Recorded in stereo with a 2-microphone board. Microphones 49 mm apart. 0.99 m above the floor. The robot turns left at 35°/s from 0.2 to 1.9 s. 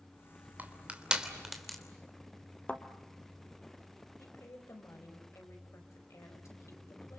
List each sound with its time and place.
0.6 s crushing: 35° right (ahead or behind), 3 m; by 1.8 s 5° left (ahead or behind), 3 m
2.7 s a thud: 25° left (ahead or behind), 1.7 m
4.2 s a woman speaking: 80° left, 5 m